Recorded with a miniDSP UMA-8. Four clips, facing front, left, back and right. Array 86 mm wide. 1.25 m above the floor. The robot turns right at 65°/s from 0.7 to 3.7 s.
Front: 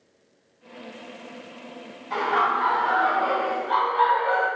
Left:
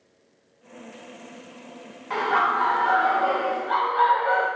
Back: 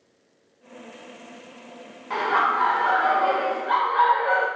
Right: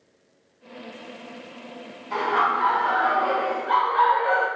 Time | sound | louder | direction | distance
2.1 | laughter | even, back 1 dB | 125° left | 1.1 m